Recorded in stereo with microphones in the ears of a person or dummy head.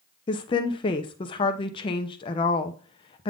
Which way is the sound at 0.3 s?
25° left (ahead or behind).